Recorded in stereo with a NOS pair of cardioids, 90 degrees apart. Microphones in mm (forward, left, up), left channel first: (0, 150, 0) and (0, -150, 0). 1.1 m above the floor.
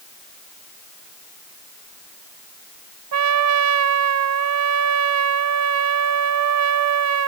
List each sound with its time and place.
3.1 s a trumpet: 55° right, 1.0 m